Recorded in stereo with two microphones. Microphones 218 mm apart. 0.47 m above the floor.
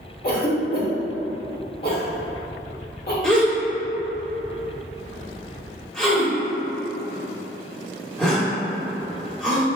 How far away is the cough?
About 1.0 m.